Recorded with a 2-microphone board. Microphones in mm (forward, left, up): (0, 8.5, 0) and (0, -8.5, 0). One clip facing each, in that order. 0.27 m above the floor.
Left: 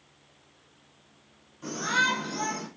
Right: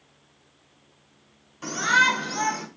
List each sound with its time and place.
1.6 s a shout: 55° right (ahead or behind), 3.5 m